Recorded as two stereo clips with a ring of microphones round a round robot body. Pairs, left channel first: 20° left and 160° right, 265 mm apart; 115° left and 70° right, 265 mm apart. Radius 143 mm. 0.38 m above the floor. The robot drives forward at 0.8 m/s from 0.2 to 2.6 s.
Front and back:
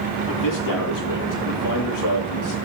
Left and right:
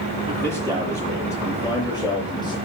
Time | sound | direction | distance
0.3 | a man speaking | 30° left | 9.5 m